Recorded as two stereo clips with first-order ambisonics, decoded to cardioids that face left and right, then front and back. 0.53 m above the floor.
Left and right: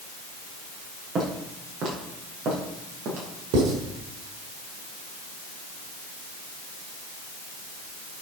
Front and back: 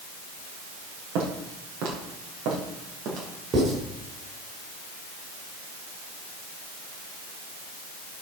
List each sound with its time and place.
1.1 s footsteps: 155° right, 5.5 m; by 3.3 s 140° right, 5 m
3.5 s writing: 120° right, 4 m